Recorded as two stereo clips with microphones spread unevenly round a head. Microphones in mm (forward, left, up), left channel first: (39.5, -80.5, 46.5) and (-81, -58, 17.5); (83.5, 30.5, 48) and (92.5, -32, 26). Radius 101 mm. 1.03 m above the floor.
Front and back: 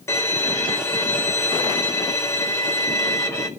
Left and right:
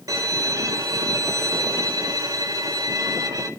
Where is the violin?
80° right, 3.5 m.